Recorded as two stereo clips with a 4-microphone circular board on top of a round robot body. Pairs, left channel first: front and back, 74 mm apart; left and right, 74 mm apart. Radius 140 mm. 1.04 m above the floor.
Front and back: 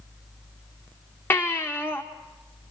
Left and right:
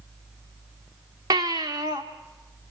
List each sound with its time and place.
1.3 s a baby crying: 60° right, 0.6 m